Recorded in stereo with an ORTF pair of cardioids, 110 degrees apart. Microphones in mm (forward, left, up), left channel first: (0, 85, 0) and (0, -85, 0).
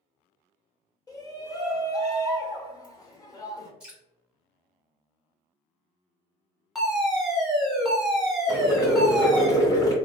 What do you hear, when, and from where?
1.1 s a shout: 20° left, 1.3 m
3.8 s dripping: 5° right, 1.6 m
6.8 s a fire alarm: straight ahead, 1.3 m
8.5 s boiling: 20° left, 1.6 m